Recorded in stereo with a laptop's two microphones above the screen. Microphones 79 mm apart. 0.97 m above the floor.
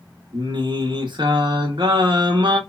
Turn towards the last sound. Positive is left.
turn(degrees=-75)  # may be behind; listen again after turning